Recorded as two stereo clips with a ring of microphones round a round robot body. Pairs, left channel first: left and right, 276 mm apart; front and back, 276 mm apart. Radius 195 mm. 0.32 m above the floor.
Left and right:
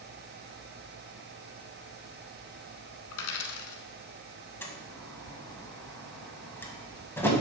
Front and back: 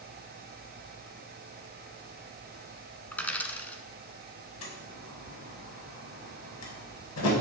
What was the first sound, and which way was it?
A dropped coin, 85° left.